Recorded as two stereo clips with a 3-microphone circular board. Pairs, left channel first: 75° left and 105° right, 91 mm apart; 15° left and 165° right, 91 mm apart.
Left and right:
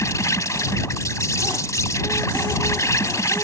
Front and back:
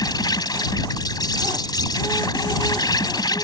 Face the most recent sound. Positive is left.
turn(degrees=30)